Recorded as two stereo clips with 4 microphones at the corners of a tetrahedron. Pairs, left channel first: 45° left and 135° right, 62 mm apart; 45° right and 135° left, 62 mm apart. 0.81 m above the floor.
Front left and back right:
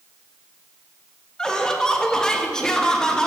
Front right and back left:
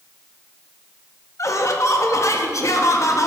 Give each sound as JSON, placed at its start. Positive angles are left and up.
{"t": 1.4, "sound": "laughter", "azimuth_deg": -35, "distance_m": 0.7}